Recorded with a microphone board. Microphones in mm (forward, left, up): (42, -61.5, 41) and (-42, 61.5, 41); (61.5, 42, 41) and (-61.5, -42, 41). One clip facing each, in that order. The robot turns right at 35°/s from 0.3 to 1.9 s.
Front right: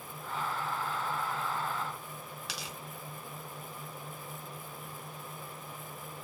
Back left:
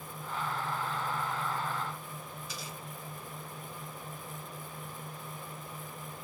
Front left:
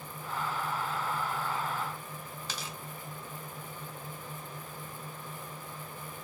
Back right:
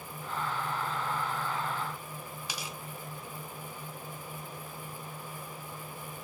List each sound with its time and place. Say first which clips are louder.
2.5 s tearing paper: even, even; 65° right, 0.6 m